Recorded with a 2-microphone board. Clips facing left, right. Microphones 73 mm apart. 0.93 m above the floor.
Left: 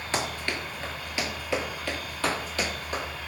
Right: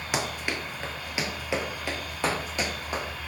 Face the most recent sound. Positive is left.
turn(degrees=-20)  # may be behind; listen again after turning